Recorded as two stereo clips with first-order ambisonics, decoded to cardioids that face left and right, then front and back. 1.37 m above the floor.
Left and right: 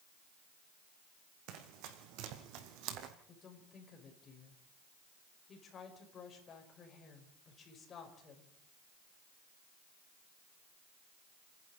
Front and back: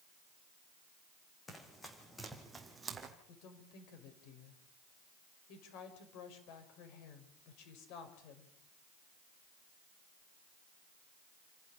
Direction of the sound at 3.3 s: 25° left.